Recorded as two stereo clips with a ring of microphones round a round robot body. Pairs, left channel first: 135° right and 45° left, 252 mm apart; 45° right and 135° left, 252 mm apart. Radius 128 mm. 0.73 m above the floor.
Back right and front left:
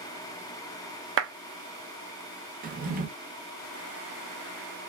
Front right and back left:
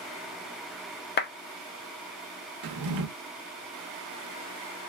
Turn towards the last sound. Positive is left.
turn(degrees=105)